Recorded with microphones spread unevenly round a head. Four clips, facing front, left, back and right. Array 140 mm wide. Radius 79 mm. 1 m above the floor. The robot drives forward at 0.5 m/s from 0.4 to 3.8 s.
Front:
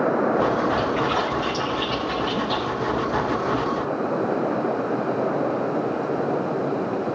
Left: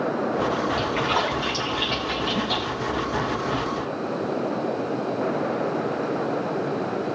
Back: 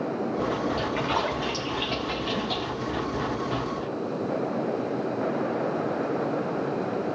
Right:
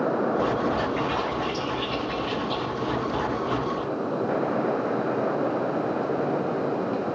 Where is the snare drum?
I don't hear a snare drum.